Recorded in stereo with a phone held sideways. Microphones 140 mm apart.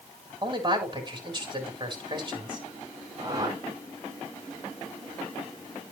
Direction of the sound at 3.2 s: 30° right (ahead or behind).